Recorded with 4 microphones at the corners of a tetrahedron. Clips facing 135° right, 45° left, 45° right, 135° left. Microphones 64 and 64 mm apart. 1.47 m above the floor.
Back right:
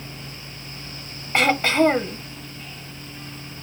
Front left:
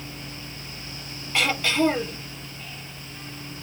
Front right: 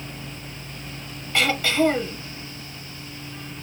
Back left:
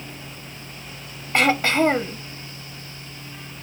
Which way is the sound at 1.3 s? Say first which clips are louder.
Back right 5 dB, back left 3 dB; 175° left.